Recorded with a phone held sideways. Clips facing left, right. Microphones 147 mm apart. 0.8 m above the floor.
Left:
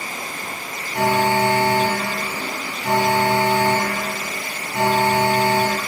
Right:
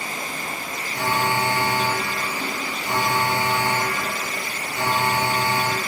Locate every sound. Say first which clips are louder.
0.9 s an alarm: left 6 dB; 75° left (ahead or behind), 5 m